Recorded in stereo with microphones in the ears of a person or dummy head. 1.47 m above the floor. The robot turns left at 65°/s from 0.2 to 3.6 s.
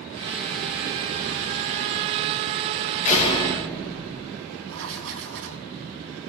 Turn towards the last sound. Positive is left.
turn(degrees=-70)  # may be behind; listen again after turning